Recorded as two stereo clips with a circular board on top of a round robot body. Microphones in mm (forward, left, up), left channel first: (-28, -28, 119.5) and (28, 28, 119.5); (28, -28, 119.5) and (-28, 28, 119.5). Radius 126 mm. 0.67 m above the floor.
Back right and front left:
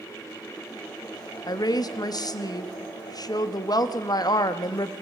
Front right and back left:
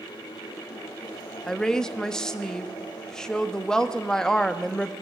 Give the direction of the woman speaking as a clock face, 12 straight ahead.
4 o'clock.